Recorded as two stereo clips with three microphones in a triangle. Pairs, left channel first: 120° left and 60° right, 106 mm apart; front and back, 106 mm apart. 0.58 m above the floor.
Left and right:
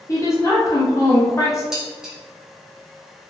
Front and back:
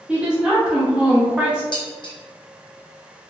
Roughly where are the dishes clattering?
Ahead left.